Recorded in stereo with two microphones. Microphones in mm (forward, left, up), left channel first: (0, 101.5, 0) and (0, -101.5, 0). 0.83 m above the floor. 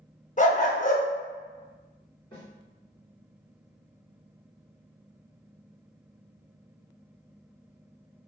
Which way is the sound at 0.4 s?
40° left (ahead or behind).